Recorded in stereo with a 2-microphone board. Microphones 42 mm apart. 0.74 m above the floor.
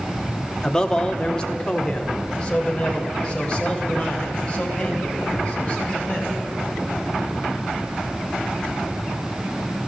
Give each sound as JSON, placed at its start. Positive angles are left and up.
{"t": 0.6, "sound": "a man speaking", "side_deg": 15, "distance_m": 0.9}